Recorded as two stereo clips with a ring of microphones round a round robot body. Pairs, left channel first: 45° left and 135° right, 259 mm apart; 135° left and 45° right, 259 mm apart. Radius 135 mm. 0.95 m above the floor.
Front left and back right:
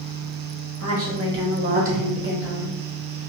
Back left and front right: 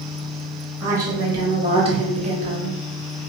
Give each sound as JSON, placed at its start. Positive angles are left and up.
{"t": 0.8, "sound": "a woman speaking", "azimuth_deg": -125, "distance_m": 1.4}